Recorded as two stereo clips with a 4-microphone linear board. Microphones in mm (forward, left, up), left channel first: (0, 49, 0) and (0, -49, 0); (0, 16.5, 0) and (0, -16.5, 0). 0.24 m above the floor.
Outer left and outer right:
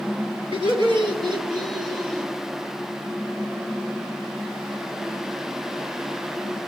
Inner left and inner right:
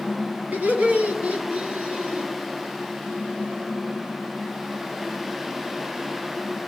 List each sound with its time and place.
0.5 s laughter: 55° right (ahead or behind), 2.5 m; by 2.3 s 35° right (ahead or behind), 1.6 m